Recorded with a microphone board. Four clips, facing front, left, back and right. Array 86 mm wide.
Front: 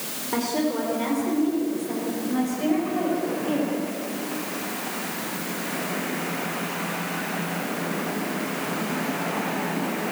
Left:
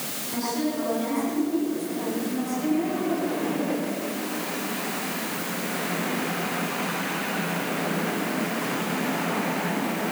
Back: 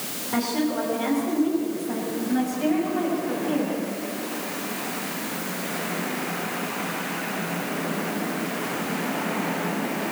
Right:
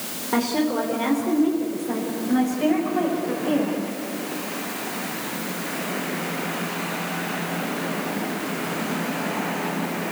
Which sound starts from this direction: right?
A woman speaking, at 0.3 s.